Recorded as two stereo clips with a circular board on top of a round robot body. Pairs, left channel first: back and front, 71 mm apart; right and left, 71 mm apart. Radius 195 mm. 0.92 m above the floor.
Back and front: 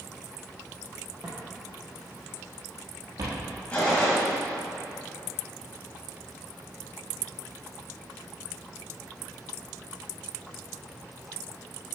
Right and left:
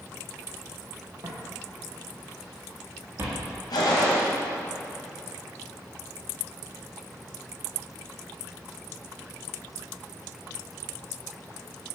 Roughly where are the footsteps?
Left.